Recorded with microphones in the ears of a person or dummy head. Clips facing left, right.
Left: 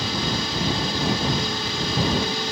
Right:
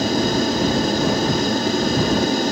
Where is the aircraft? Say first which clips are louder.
Right 9 dB; 40° right (ahead or behind).